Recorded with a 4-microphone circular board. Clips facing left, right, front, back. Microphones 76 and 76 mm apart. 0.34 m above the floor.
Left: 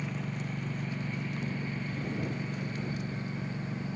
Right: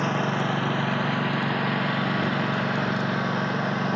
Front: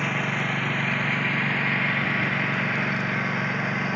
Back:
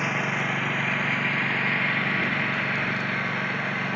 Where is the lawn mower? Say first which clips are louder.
Right 13 dB, even; 95° right; by 4.0 s 85° right.